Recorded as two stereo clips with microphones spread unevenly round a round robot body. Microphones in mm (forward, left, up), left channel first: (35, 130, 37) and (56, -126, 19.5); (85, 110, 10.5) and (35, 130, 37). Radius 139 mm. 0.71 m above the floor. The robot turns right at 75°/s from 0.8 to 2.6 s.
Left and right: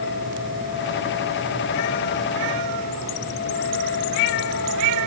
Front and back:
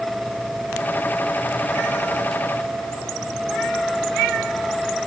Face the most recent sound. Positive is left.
No sound to turn to.